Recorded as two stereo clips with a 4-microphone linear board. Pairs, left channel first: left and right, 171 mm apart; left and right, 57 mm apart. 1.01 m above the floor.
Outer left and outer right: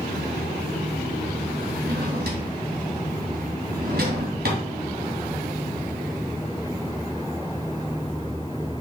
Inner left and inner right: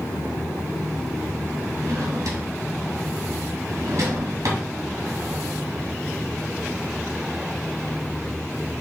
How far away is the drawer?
About 2.5 m.